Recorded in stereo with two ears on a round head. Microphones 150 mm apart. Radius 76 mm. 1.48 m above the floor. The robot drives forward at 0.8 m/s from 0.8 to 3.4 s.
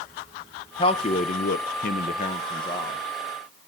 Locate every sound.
0.8 s a man speaking: 30° left (ahead or behind), 0.9 m; by 3.0 s 25° left (ahead or behind), 1.2 m